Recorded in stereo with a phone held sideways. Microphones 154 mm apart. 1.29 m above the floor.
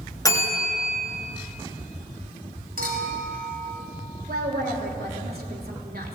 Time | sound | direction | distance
0.2 | a bell | 20° left (ahead or behind) | 3 m
2.8 | a clink | 65° right (ahead or behind) | 4.5 m
4.3 | a woman speaking | 75° right (ahead or behind) | 3.5 m